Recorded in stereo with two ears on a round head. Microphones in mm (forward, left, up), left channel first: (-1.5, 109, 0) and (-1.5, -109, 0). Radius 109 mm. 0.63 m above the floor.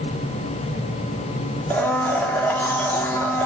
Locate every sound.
1.7 s a blender: 5° left (ahead or behind), 1.8 m